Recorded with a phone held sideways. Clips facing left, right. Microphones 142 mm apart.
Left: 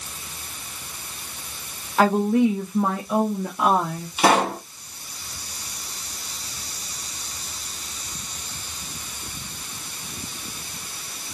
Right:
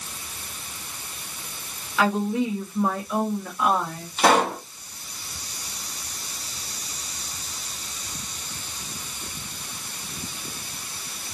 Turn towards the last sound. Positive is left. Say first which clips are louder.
# even
turn(degrees=10)  # may be behind; listen again after turning